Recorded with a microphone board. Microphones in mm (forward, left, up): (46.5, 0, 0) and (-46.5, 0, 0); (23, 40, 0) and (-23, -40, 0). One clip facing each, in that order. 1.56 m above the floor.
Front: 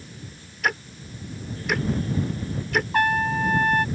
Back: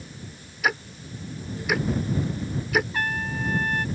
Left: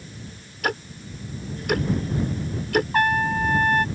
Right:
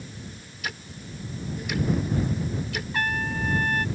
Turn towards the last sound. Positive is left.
turn(degrees=25)